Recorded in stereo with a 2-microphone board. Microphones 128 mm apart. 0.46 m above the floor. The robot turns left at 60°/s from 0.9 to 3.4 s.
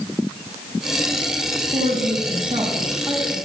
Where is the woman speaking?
95° right, 3.5 m; by 3.4 s 170° left, 3.5 m.